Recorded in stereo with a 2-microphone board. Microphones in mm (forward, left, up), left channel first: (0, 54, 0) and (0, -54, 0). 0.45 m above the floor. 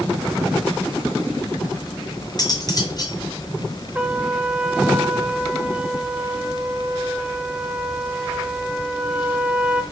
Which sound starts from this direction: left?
Cutlery clinking, at 2.4 s.